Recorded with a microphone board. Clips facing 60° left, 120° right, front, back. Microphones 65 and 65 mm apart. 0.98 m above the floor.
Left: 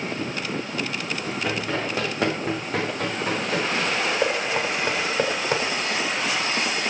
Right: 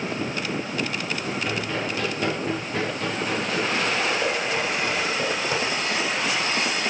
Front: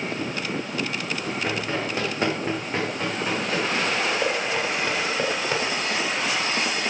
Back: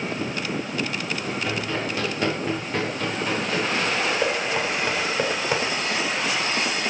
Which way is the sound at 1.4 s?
55° left.